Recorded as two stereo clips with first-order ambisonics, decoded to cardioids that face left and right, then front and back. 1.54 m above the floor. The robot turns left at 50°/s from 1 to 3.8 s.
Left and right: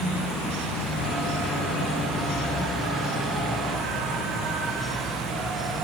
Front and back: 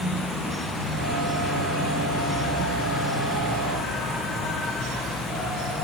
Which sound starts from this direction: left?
An insect, at 0.0 s.